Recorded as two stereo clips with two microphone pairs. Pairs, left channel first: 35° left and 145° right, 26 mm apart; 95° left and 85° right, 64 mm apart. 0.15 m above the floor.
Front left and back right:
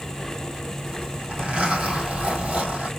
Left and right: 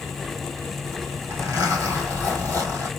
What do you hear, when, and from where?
0.9 s a zipper: 110° right, 3 m